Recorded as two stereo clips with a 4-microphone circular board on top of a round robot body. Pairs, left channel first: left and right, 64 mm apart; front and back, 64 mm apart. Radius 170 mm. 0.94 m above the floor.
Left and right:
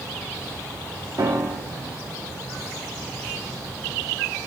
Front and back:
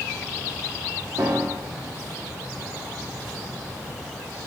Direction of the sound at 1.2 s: 130° right.